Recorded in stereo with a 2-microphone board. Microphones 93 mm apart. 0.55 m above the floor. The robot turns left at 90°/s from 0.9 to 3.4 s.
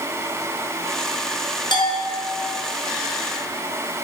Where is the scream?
I don't hear a scream.